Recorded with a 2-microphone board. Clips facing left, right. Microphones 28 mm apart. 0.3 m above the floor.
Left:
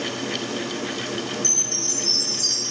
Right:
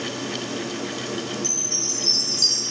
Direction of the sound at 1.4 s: 65° right (ahead or behind).